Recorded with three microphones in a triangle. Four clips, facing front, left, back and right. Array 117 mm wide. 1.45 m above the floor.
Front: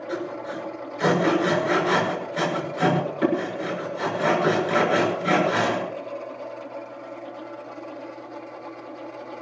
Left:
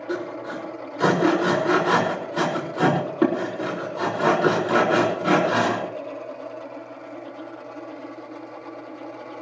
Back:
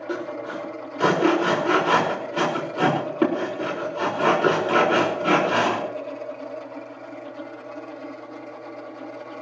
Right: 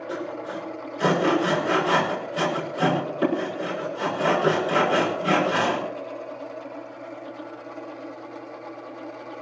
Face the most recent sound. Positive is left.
turn(degrees=135)